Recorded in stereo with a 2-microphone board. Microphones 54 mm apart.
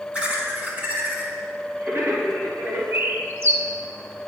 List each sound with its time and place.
0.1 s laughter: 25° right (ahead or behind), 1.5 m; by 2.8 s 50° right (ahead or behind), 2.5 m
2.9 s a bird: 45° right (ahead or behind), 0.7 m